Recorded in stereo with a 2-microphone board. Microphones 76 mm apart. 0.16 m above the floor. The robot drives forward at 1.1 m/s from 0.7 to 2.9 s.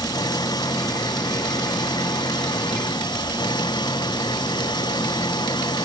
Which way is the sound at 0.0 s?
65° left (ahead or behind).